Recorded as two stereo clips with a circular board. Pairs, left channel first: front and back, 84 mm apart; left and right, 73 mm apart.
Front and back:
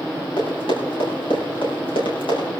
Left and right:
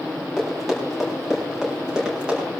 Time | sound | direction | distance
0.4 | running footsteps | 5° left | 8 m